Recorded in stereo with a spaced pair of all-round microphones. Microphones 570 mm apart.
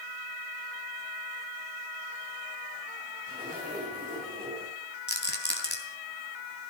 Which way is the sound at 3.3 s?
15° right (ahead or behind).